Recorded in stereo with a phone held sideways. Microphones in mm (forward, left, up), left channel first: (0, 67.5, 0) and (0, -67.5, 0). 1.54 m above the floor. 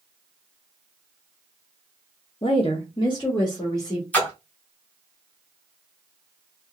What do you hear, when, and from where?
2.4 s a woman speaking: 45° left (ahead or behind), 0.7 m; by 4.0 s 30° left (ahead or behind), 1.7 m
4.1 s a splash: 10° left (ahead or behind), 1.9 m